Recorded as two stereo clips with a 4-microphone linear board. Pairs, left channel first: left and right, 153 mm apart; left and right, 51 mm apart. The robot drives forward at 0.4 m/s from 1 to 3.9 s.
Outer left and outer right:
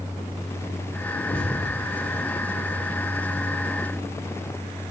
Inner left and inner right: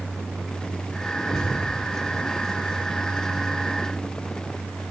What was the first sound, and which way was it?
A thud, 65° left (ahead or behind).